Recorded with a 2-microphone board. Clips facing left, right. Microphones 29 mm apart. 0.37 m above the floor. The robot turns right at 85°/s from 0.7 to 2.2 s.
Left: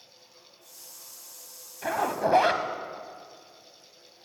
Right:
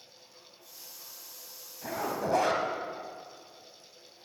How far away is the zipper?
About 0.8 m.